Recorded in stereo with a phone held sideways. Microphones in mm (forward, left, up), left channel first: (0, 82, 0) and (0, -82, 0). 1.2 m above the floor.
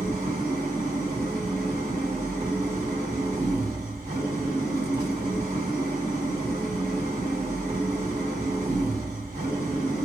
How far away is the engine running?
About 3 m.